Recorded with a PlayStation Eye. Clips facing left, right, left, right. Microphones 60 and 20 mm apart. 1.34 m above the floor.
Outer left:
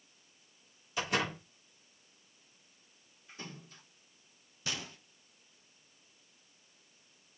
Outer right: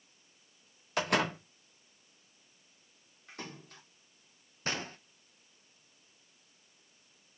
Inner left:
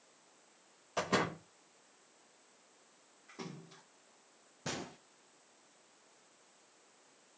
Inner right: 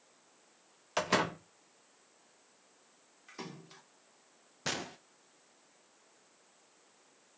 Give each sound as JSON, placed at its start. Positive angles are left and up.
{"t": 1.0, "sound": "a door slam", "side_deg": -80, "distance_m": 2.5}
{"t": 3.3, "sound": "a splash", "side_deg": -80, "distance_m": 4.0}
{"t": 4.7, "sound": "a gunshot", "side_deg": -45, "distance_m": 1.0}